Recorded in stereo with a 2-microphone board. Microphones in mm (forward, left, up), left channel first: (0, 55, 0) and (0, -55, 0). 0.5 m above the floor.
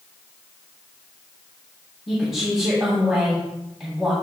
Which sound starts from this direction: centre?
A woman speaking, at 2.1 s.